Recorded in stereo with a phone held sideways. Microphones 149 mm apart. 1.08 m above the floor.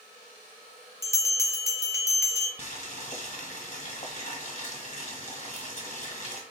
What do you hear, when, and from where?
1.0 s a bell: 20° left (ahead or behind), 0.8 m
2.6 s boiling: 50° left (ahead or behind), 1.4 m